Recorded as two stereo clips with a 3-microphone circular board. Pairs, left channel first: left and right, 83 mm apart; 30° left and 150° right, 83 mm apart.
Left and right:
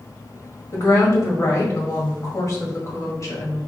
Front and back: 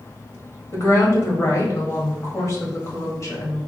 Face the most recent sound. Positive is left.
turn(degrees=65)